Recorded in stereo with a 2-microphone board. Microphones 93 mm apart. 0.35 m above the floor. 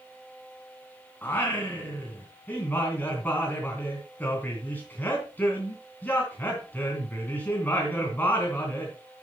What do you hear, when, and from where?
1.2 s singing: 20° left (ahead or behind), 3 m